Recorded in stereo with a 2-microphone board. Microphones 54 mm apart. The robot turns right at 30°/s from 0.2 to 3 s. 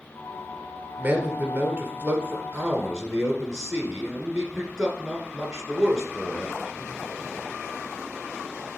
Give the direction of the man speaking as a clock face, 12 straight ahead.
3 o'clock.